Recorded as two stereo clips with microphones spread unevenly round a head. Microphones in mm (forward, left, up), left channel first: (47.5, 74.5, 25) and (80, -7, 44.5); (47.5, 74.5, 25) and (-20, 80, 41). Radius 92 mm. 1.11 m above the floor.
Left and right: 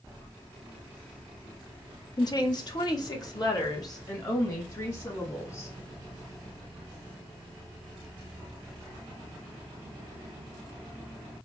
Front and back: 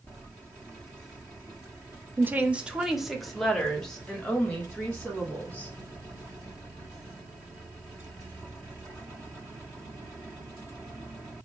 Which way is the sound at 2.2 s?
110° left.